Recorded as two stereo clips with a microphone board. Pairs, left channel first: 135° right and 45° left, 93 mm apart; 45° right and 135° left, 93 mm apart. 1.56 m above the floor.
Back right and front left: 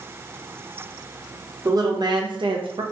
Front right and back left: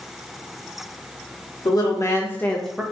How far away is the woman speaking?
About 0.8 m.